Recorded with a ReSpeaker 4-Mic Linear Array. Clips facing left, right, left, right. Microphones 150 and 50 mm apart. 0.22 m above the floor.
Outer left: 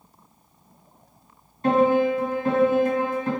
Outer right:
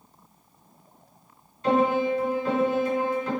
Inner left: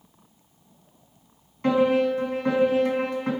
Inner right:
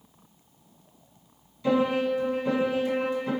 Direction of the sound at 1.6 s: 50° left (ahead or behind).